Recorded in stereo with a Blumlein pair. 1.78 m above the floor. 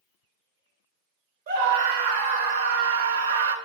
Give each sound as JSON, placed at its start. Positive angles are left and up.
{"t": 1.5, "sound": "a scream", "azimuth_deg": -60, "distance_m": 1.6}